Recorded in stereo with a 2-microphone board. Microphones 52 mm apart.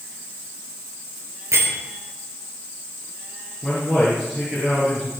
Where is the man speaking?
5° left (ahead or behind), 7.5 m.